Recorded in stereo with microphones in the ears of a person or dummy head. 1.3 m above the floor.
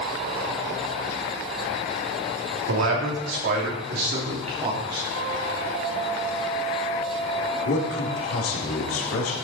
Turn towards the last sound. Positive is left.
turn(degrees=75)  # may be behind; listen again after turning